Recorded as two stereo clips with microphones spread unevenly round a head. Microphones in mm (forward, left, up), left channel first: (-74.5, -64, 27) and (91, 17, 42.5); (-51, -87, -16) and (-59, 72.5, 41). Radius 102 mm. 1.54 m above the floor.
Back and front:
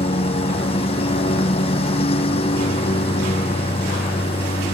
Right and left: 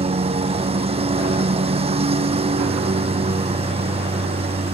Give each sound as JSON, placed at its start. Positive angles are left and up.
{"t": 0.0, "sound": "a lawn mower", "azimuth_deg": 145}